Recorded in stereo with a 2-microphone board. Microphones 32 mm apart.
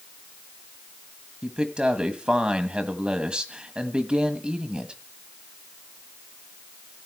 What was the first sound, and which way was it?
A man speaking, 30° right (ahead or behind).